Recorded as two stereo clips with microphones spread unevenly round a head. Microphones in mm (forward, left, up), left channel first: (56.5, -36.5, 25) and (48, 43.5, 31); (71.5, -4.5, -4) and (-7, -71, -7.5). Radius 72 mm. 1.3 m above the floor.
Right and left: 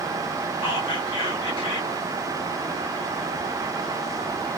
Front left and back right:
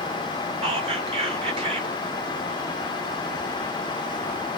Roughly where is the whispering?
Right.